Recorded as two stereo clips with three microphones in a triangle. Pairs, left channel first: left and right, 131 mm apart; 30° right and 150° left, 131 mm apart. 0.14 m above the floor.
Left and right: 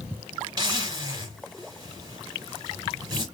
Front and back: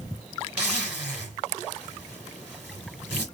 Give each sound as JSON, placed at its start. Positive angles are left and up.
{"t": 0.6, "sound": "a zipper", "azimuth_deg": -135, "distance_m": 2.5}